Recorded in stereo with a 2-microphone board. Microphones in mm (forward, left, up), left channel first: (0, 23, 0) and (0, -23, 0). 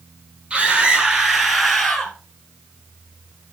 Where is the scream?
25° right (ahead or behind), 4 m; by 2.1 s 10° left (ahead or behind), 3 m.